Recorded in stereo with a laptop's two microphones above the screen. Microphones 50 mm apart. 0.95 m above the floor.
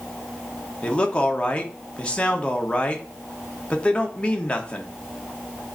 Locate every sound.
0.8 s a man speaking: 25° left (ahead or behind), 0.9 m